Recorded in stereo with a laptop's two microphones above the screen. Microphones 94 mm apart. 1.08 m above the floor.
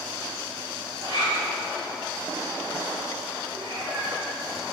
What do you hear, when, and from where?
1.0 s a zipper: 60° right (ahead or behind), 3 m
3.5 s a cat meowing: 70° right (ahead or behind), 3 m